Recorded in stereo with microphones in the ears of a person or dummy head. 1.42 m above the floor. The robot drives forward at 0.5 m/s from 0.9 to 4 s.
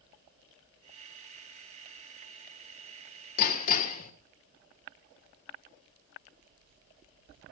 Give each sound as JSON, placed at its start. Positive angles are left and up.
{"t": 3.4, "sound": "hammering", "side_deg": 50, "distance_m": 1.6}